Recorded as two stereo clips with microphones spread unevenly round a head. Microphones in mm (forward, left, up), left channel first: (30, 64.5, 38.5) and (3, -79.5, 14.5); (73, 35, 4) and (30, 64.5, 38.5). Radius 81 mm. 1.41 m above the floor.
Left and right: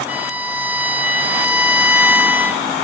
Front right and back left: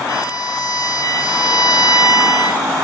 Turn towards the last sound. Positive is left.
turn(degrees=-15)